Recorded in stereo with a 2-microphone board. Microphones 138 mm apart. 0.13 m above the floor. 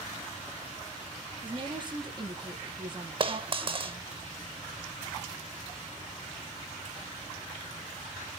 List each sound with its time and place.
1.4 s a woman speaking: 30° right (ahead or behind), 4 m
3.2 s a dropped coin: 40° right (ahead or behind), 1.0 m